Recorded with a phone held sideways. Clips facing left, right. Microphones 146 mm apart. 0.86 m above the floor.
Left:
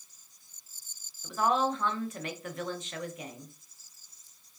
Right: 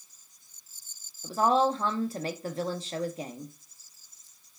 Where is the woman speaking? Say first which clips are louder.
Right 4 dB; 35° right (ahead or behind), 0.5 m.